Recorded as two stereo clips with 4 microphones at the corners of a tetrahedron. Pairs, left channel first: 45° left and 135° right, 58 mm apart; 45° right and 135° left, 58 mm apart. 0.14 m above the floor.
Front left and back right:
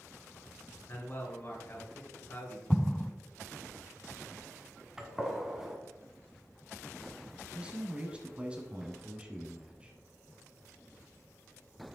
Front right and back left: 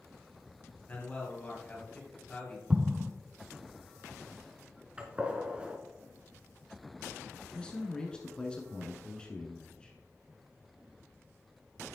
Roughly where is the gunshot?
Behind.